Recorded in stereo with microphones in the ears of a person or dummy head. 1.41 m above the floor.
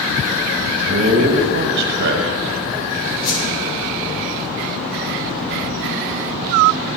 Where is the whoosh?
50° left (ahead or behind), 3 m.